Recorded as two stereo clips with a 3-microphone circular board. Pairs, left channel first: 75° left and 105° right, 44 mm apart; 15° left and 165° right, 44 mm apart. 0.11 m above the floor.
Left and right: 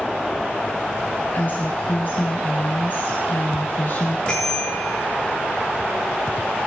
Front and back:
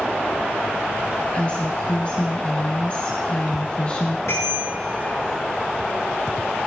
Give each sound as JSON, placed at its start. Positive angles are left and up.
{"t": 1.3, "sound": "a woman speaking", "azimuth_deg": 65, "distance_m": 1.8}
{"t": 4.3, "sound": "a bicycle bell", "azimuth_deg": 5, "distance_m": 7.5}